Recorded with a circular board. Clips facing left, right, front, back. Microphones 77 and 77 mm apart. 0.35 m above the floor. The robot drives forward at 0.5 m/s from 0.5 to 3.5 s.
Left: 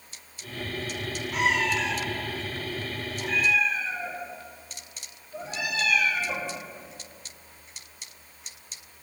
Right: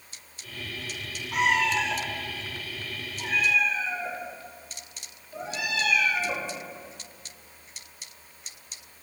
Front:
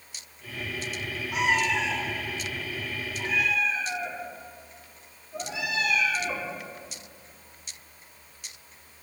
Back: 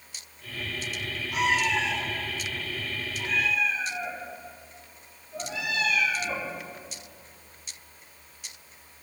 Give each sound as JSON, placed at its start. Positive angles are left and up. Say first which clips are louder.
{"t": 1.3, "sound": "a cat meowing", "louder": "right 2 dB, even", "azimuth_deg": -65, "distance_m": 5.5}